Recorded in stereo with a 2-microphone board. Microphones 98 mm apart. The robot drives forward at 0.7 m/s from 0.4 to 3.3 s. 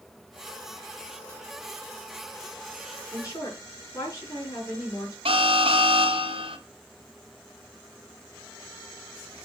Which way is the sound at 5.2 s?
75° right (ahead or behind).